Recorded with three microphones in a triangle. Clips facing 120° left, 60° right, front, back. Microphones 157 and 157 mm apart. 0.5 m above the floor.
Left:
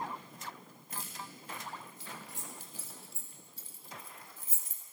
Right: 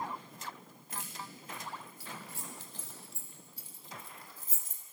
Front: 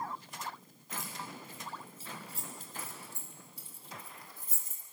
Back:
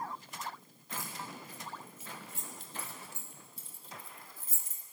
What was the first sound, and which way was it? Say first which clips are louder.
Keys jangling: right 1 dB, even; 70° left.